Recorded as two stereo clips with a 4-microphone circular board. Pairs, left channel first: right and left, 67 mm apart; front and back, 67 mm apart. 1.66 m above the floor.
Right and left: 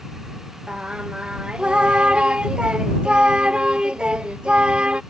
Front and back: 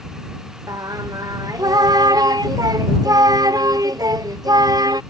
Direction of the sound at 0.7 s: 165° left.